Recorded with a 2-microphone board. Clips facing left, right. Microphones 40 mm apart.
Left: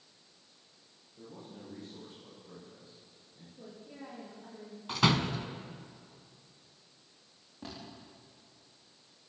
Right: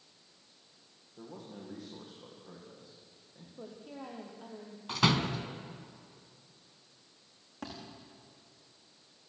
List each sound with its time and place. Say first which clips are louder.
1.2 s a man speaking: right 2 dB; 70° right (ahead or behind), 10 m
3.6 s a woman speaking: right 3 dB; 80° right, 5.5 m
4.9 s a door slam: even; centre (ahead or behind), 1.4 m
7.6 s a thud: right 2 dB; 80° right, 9.5 m